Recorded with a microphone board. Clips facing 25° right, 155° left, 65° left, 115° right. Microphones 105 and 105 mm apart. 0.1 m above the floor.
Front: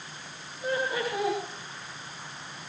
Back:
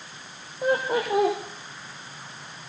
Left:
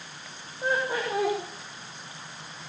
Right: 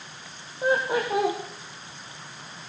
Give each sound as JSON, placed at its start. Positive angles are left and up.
{"t": 0.6, "sound": "laughter", "azimuth_deg": 175, "distance_m": 4.0}